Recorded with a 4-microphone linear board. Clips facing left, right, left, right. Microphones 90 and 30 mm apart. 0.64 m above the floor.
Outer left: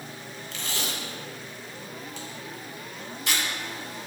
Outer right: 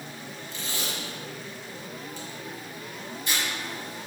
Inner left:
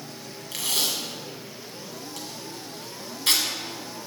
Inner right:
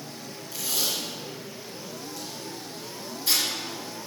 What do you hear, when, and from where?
0.5 s tape being pulled: 75° left (ahead or behind), 1.4 m